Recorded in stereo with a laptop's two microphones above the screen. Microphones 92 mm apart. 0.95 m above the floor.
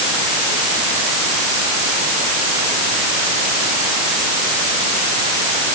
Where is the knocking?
No knocking in this recording.